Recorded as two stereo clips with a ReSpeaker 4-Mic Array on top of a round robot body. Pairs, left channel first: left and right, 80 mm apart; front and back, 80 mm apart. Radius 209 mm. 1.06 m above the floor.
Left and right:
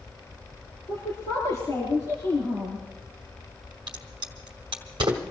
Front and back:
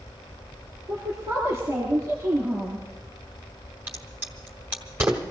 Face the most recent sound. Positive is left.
turn(degrees=-115)